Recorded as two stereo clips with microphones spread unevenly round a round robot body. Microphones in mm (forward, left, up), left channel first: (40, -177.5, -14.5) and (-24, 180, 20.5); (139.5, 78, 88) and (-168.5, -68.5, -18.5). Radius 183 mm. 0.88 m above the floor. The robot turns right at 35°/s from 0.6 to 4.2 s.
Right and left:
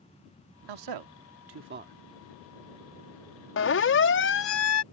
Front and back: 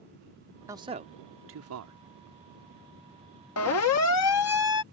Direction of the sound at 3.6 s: 30° right.